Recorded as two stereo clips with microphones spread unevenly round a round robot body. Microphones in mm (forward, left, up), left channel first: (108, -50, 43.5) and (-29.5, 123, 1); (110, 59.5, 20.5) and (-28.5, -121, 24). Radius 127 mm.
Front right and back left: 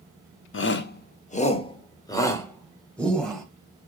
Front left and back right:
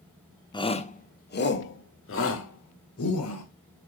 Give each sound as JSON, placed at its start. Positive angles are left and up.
{"t": 0.5, "sound": "a shout", "azimuth_deg": -20, "distance_m": 1.5}